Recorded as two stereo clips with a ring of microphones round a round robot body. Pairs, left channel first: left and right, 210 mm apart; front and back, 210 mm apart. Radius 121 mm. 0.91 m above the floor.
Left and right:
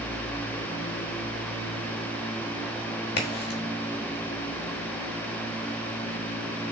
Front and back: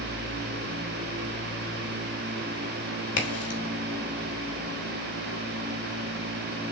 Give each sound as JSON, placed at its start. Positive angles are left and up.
{"t": 3.2, "sound": "a crack", "azimuth_deg": 40, "distance_m": 1.1}